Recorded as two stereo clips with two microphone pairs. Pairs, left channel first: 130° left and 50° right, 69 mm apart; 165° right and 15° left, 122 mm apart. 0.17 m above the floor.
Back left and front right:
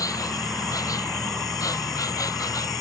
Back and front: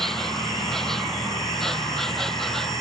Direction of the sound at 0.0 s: 105° left.